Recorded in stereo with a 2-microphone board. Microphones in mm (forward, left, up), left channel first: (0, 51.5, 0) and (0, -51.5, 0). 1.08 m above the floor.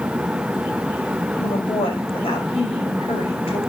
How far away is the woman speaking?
About 5 m.